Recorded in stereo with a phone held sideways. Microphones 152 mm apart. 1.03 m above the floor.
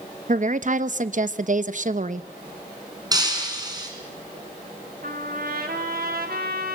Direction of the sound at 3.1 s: 25° right (ahead or behind).